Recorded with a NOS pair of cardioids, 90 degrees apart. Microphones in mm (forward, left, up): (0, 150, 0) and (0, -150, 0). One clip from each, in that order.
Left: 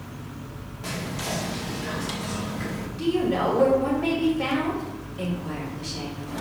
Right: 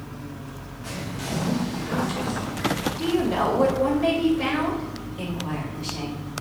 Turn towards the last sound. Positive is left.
turn(degrees=-20)